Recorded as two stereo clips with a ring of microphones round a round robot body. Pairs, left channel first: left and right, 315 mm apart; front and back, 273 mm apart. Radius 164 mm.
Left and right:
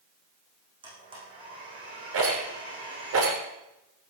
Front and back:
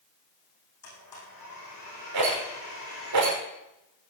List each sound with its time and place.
0.8 s a blender: 15° right, 8.5 m
2.1 s a rattle: 140° right, 4.5 m